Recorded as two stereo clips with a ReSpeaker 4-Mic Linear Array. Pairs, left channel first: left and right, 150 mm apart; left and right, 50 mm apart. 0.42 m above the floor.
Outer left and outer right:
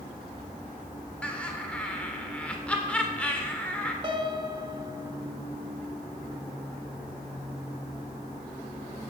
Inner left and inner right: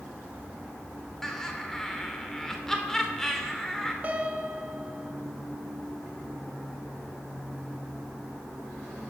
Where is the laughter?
10° left (ahead or behind), 1.2 m.